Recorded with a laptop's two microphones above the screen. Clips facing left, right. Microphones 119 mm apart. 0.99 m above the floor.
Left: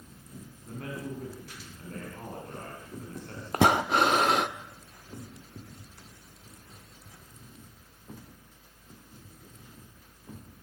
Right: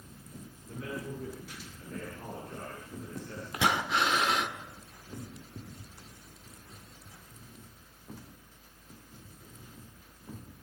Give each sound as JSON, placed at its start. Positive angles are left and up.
{"t": 0.7, "sound": "a man speaking", "side_deg": 60, "distance_m": 9.0}
{"t": 3.5, "sound": "breathing", "side_deg": 45, "distance_m": 1.0}